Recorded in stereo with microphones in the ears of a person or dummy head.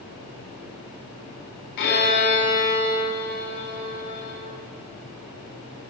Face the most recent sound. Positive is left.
turn(degrees=55)  # may be behind; listen again after turning